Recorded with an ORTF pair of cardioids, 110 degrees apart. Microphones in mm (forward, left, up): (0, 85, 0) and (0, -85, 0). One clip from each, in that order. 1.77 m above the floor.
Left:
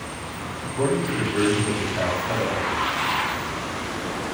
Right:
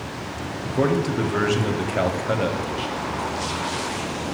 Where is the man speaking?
45° right, 0.7 m.